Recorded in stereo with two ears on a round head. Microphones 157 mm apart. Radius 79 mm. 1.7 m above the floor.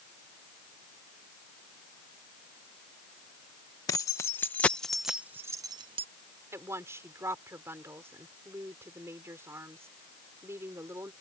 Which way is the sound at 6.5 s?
15° right (ahead or behind).